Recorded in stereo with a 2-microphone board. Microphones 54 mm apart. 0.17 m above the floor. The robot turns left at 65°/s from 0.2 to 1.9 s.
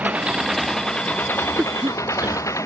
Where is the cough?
30° right (ahead or behind); by 2.5 s 45° right (ahead or behind).